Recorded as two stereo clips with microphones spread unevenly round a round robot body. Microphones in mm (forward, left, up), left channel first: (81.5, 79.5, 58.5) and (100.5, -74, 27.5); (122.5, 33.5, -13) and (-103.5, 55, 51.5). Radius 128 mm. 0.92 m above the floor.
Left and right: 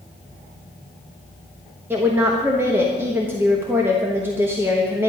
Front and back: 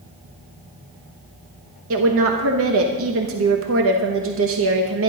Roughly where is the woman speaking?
Behind right.